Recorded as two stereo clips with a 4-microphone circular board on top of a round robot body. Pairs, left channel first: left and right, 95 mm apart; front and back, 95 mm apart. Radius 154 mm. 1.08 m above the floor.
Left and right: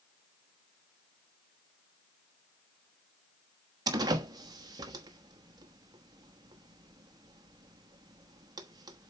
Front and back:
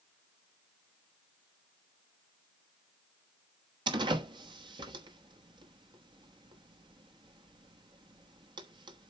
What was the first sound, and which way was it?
A door slam, 140° right.